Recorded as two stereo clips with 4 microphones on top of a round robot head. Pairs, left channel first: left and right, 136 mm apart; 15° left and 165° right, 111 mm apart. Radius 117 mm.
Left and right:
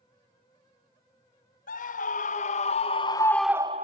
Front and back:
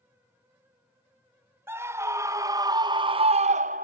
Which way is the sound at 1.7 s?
125° left.